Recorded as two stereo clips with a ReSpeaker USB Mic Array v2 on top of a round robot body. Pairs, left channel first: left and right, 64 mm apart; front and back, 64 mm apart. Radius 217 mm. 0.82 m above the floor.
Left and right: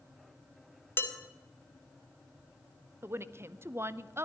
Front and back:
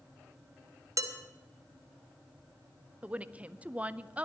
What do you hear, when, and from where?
1.0 s dishes clattering: 145° left, 1.2 m
3.0 s a woman speaking: 120° right, 0.8 m